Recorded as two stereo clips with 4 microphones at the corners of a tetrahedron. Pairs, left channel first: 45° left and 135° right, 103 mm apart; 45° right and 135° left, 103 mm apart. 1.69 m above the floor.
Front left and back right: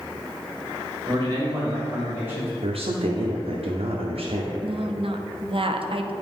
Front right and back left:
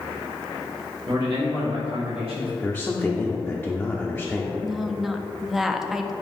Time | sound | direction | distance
1.1 | a man speaking | 175° left | 2 m
2.6 | a man speaking | 125° right | 0.7 m
4.6 | a woman speaking | 140° right | 0.6 m